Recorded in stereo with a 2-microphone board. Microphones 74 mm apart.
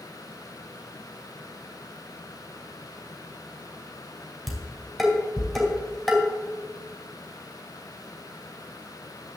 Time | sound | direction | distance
4.5 | dishes clattering | centre (ahead or behind) | 3 m